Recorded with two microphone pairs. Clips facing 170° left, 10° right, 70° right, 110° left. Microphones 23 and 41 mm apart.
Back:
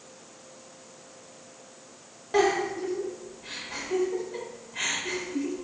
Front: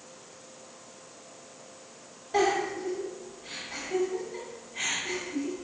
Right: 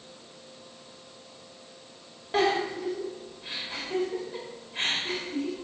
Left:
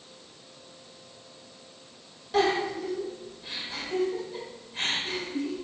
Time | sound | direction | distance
2.3 | a giggle | 135° right | 1.5 m